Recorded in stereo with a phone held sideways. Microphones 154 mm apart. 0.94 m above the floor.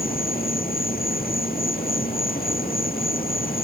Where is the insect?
75° left (ahead or behind).